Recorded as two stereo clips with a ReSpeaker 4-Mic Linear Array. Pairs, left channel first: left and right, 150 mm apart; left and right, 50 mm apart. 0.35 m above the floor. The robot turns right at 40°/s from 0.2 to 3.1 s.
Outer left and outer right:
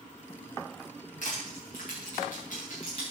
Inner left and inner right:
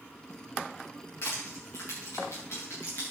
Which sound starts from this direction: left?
Crushing, at 1.2 s.